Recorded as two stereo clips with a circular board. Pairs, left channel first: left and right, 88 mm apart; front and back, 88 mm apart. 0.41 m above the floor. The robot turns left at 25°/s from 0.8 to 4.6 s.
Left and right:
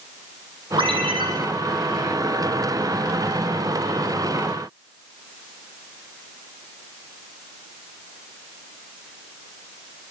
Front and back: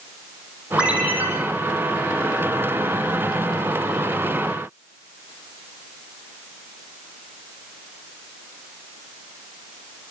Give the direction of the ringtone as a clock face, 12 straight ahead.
3 o'clock.